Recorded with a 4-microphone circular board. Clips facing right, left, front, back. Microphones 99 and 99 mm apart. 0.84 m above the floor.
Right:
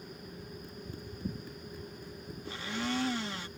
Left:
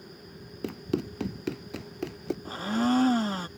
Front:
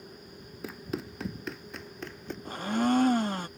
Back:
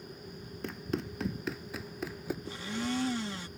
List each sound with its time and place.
0.6 s running footsteps: 85° left; by 2.4 s 100° left
2.5 s a blender: 40° left